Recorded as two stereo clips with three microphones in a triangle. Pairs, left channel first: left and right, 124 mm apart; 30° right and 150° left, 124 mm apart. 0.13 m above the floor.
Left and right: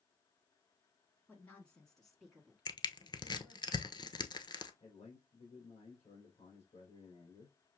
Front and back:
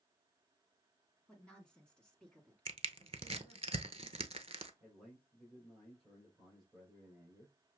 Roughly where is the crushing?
Behind left.